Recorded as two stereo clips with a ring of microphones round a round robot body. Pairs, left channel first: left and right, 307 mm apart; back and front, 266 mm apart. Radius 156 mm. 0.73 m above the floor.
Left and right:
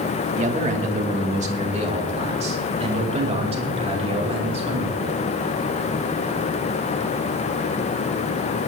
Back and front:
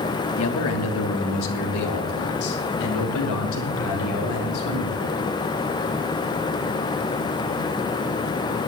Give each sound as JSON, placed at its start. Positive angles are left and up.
{"t": 0.4, "sound": "a man speaking", "azimuth_deg": -155, "distance_m": 1.6}